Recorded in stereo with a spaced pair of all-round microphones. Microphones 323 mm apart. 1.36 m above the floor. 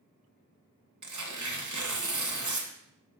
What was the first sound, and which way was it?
Tearing paper, 65° right (ahead or behind).